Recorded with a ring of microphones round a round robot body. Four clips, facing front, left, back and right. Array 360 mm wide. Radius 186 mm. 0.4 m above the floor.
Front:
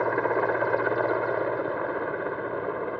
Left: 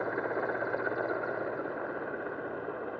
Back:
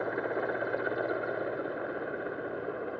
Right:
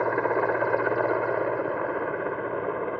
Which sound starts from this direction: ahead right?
A helicopter, at 0.0 s.